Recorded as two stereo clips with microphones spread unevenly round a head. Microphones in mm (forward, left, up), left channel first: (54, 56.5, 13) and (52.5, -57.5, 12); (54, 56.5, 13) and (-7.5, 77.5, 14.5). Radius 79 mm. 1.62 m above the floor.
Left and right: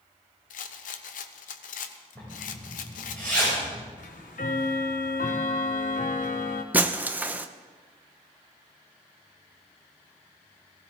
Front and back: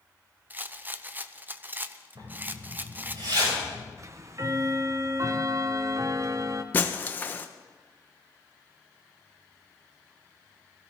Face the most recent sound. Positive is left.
turn(degrees=-30)